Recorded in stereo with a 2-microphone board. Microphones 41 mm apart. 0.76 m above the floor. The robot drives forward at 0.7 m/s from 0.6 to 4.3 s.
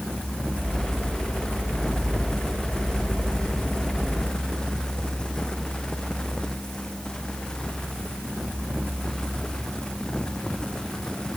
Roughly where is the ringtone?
No ringtone in this recording.